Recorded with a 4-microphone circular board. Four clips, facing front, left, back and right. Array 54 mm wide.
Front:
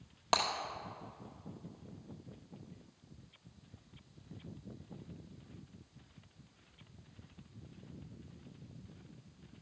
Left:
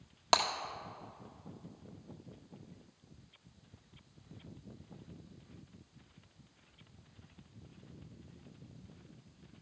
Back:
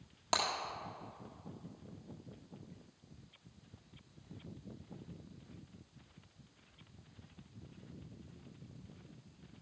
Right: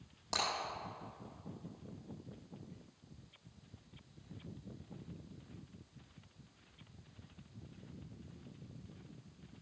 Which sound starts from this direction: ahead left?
Breaking glass, at 0.3 s.